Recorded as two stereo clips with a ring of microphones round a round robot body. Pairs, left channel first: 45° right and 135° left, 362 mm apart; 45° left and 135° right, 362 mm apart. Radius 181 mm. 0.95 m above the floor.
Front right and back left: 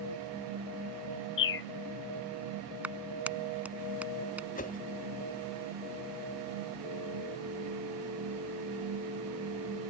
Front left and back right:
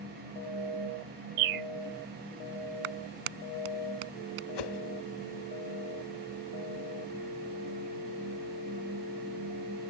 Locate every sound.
1.4 s a bird: 105° right
2.8 s a clap: 140° right
4.5 s a whoosh: 25° left